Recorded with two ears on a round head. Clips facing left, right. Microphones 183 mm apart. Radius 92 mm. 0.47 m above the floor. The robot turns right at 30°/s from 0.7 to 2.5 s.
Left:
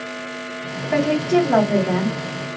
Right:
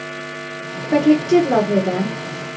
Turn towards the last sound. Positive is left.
turn(degrees=-35)